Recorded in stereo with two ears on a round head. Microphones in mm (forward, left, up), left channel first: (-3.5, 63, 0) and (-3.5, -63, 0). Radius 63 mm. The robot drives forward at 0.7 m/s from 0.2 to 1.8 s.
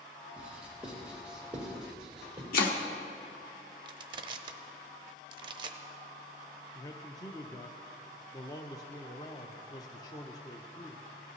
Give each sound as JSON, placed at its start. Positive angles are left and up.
{"t": 0.4, "sound": "writing", "side_deg": -10, "distance_m": 2.0}
{"t": 2.5, "sound": "chopping", "side_deg": 70, "distance_m": 1.1}
{"t": 3.9, "sound": "crushing", "side_deg": -35, "distance_m": 0.8}
{"t": 6.8, "sound": "a man speaking", "side_deg": 25, "distance_m": 0.6}